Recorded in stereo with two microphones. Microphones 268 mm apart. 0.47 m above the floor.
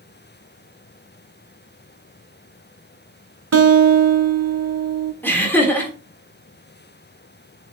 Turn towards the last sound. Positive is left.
turn(degrees=5)  # may be behind; listen again after turning